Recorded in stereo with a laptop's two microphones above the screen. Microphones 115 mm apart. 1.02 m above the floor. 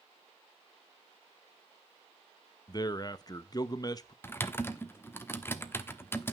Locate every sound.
2.7 s a man speaking: 35° left (ahead or behind), 0.7 m
4.2 s typing on a keyboard: 20° left (ahead or behind), 1.1 m